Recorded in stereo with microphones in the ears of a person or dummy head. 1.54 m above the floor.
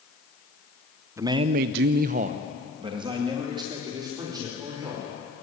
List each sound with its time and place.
1.2 s a man speaking: 15° right (ahead or behind), 0.9 m; by 5.1 s 20° right (ahead or behind), 5 m